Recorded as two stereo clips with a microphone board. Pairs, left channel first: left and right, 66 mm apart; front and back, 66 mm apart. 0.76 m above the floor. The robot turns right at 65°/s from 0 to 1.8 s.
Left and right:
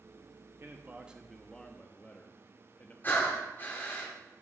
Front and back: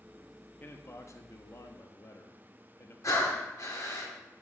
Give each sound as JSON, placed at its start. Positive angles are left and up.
{"t": 0.6, "sound": "a man speaking", "azimuth_deg": -50, "distance_m": 0.8}
{"t": 3.0, "sound": "breathing", "azimuth_deg": 30, "distance_m": 1.9}